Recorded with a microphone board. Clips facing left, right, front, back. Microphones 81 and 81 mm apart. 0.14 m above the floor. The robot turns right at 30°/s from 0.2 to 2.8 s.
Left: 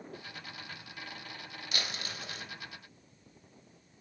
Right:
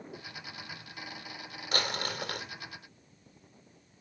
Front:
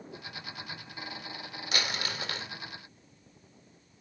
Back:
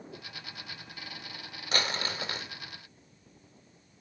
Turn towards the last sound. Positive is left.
turn(degrees=-100)